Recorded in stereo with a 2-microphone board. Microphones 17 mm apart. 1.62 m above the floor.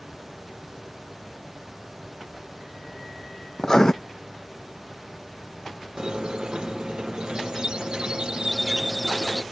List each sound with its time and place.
3.6 s writing: 30° left (ahead or behind)
6.0 s a squeak: 50° right (ahead or behind)